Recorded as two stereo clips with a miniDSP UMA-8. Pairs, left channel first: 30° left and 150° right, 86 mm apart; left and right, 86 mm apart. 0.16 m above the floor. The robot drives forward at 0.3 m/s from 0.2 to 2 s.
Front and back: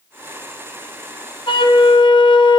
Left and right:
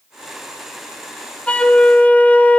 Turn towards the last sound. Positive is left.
turn(degrees=15)